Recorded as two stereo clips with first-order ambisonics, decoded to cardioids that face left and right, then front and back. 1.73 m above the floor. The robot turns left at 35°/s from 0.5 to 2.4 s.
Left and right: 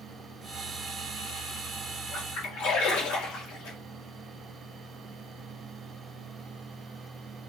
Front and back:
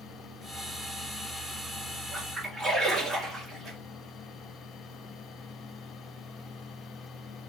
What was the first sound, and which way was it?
A splash, 115° left.